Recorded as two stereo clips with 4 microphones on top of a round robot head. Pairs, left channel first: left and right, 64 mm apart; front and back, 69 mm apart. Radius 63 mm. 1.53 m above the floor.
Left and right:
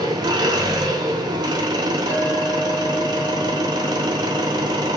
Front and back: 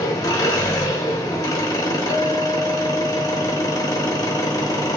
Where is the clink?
95° left, 1.2 m.